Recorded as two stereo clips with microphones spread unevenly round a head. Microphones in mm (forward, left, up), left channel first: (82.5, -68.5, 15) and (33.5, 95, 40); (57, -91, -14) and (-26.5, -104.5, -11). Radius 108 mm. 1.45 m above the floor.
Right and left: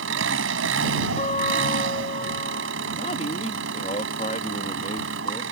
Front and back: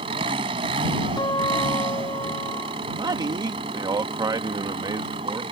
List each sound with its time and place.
0.0 s an engine running: 140° left
1.2 s a guitar: 20° right
2.9 s a man speaking: 140° right